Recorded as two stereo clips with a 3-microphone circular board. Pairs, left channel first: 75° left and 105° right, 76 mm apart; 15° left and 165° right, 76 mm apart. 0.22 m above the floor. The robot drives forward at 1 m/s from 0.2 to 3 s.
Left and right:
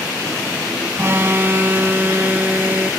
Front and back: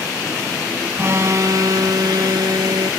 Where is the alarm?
135° right; by 2.9 s 170° right.